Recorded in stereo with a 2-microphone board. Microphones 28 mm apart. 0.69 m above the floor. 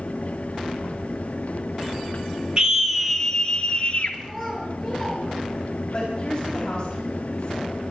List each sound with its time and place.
2.6 s a scream: 30° right (ahead or behind), 1.3 m; by 4.1 s 45° left (ahead or behind), 2.0 m
4.2 s a child speaking: centre (ahead or behind), 9 m
5.9 s a woman speaking: 35° left (ahead or behind), 5 m